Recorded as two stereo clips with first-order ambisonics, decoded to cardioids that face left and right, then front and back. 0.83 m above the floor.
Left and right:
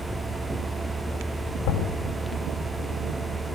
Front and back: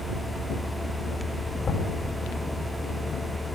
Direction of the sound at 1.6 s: 75° left.